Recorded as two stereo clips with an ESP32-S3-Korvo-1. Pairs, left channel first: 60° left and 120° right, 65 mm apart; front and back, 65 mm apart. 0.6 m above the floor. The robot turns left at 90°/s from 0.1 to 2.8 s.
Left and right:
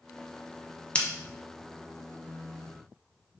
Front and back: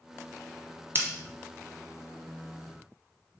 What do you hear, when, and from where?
0.9 s scissors: 130° left, 0.8 m; by 1.1 s 120° left, 0.8 m